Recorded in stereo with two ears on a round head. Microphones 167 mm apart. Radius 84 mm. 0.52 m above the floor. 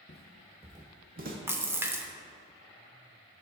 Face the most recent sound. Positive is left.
turn(degrees=-15)  # may be behind; listen again after turning